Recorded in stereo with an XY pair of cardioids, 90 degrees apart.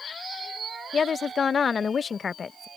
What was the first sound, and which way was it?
A woman speaking, 45° left.